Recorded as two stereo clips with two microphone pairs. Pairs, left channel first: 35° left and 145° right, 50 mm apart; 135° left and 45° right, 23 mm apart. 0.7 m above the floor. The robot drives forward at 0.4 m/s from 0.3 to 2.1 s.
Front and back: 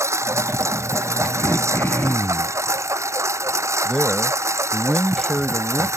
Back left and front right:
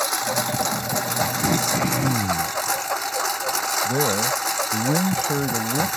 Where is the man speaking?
55° right.